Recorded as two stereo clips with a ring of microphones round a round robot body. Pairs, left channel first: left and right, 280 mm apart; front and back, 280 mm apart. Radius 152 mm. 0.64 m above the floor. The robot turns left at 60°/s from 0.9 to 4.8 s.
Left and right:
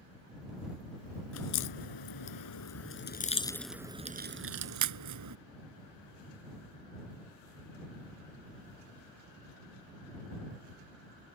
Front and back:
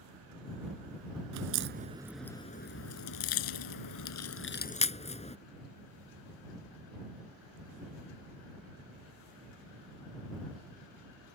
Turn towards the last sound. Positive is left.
turn(degrees=-65)